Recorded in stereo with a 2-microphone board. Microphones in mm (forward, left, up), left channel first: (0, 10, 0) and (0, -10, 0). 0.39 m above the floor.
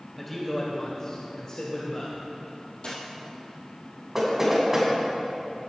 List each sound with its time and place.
0.2 s a man speaking: 10° left (ahead or behind), 1.9 m; by 2.2 s 35° left (ahead or behind), 2 m
2.8 s a dropped coin: 50° left (ahead or behind), 3.5 m
4.2 s knocking: 20° right (ahead or behind), 3 m